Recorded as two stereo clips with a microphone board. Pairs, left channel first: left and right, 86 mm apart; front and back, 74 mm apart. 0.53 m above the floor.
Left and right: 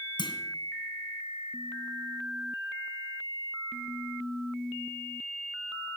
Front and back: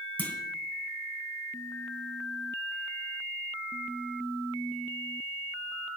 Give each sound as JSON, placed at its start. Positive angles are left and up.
{"t": 0.2, "sound": "a clunk", "azimuth_deg": 65, "distance_m": 2.0}